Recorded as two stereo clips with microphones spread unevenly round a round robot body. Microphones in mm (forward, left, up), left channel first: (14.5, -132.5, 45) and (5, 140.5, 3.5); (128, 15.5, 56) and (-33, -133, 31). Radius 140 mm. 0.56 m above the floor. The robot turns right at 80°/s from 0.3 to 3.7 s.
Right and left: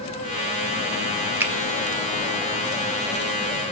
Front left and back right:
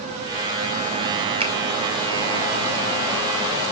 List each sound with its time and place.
1.4 s a finger snap: 165° left, 1.3 m; by 1.5 s 175° left, 1.3 m